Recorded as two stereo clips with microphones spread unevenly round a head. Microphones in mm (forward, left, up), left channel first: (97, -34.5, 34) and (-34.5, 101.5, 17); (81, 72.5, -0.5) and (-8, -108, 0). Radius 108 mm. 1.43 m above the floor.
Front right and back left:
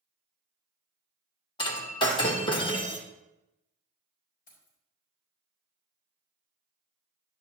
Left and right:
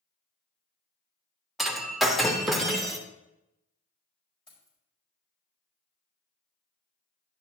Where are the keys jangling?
Straight ahead, 4.5 m.